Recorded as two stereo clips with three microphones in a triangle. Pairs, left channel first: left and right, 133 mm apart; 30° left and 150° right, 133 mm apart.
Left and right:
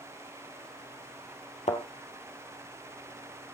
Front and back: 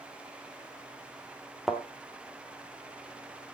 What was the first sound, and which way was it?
A thud, 125° left.